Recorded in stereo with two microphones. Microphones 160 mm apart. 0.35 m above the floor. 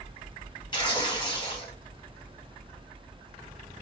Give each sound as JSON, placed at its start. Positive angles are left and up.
{"t": 0.7, "sound": "tearing paper", "side_deg": 30, "distance_m": 2.0}